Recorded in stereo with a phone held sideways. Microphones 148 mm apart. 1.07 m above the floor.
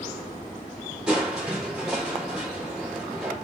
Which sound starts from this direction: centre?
Crushing, at 1.1 s.